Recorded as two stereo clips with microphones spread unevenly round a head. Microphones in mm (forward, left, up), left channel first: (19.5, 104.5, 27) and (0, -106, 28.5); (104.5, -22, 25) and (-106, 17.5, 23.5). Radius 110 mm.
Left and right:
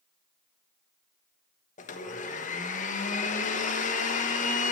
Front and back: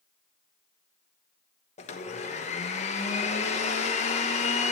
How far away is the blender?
About 1.1 m.